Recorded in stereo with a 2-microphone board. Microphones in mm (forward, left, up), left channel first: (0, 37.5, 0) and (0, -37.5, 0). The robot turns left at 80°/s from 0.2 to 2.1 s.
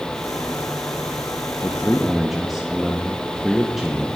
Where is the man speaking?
40° left, 0.7 m; by 4.2 s 5° right, 0.7 m.